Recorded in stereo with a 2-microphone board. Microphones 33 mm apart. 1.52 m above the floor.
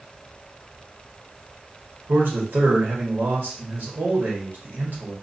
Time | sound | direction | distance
2.1 | a man speaking | 85° right | 1.4 m